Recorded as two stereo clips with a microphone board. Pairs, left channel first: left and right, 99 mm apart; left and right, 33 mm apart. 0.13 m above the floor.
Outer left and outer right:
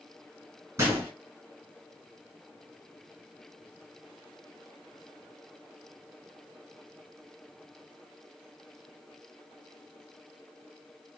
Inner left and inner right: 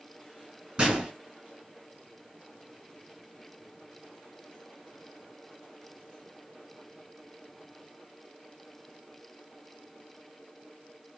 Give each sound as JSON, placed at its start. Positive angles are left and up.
{"t": 0.8, "sound": "a gunshot", "side_deg": -30, "distance_m": 1.9}